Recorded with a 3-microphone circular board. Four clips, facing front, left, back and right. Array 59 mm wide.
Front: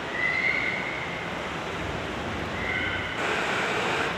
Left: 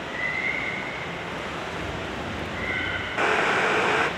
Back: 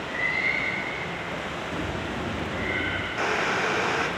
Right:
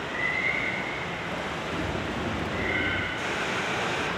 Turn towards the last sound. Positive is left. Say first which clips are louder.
# left 7 dB, back 2 dB
turn(degrees=100)